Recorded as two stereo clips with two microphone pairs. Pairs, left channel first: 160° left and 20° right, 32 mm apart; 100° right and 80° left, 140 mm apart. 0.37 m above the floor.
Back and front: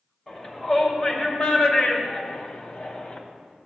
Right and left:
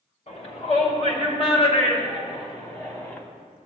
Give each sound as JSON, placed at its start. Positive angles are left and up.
{"t": 0.3, "sound": "a shout", "azimuth_deg": -125, "distance_m": 3.0}